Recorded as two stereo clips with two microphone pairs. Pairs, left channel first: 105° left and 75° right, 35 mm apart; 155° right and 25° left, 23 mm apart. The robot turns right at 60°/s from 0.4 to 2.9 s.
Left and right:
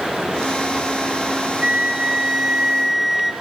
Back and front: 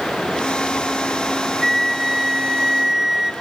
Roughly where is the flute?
Right.